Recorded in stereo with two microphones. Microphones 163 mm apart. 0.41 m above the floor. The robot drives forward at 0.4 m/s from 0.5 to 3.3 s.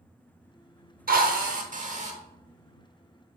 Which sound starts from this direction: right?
A drill, at 1.1 s.